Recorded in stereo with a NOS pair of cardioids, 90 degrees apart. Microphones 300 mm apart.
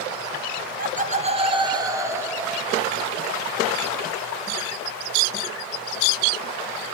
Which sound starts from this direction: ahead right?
Laughter, at 0.6 s.